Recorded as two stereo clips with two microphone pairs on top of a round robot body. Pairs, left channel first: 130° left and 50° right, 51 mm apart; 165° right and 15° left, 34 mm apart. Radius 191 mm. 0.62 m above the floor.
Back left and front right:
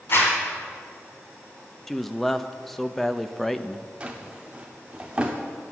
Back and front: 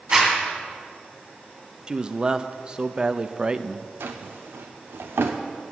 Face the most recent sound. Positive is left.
turn(degrees=20)